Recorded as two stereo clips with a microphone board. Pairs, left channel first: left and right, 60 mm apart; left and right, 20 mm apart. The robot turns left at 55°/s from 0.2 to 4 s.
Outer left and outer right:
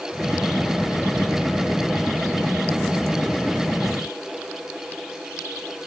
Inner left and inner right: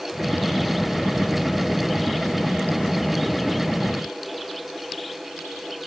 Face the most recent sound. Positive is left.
No sound to turn to.